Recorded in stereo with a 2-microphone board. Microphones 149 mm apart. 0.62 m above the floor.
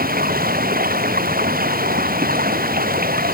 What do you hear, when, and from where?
0.0 s running water: 85° right